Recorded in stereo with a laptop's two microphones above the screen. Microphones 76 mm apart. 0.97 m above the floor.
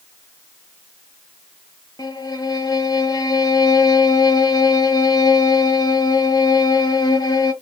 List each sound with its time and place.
2.0 s a violin: 60° left (ahead or behind), 0.7 m